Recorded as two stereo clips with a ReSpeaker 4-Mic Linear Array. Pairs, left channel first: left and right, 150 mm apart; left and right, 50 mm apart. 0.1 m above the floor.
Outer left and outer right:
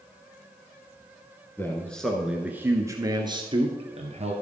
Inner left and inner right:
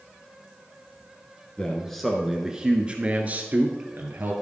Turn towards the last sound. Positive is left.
turn(degrees=-45)  # may be behind; listen again after turning